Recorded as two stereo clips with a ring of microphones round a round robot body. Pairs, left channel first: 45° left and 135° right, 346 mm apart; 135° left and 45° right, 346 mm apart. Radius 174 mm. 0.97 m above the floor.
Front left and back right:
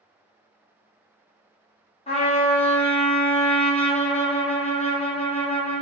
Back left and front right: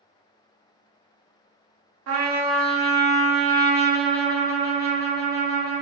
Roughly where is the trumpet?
Ahead.